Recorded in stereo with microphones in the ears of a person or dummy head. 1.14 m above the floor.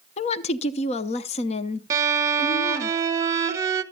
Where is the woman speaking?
35° left (ahead or behind), 0.6 m.